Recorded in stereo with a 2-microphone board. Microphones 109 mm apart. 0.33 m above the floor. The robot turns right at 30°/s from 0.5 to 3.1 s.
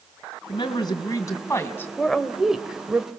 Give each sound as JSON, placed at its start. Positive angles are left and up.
{"t": 0.5, "sound": "a woman speaking", "azimuth_deg": 115, "distance_m": 2.5}
{"t": 2.0, "sound": "a woman speaking", "azimuth_deg": 170, "distance_m": 1.2}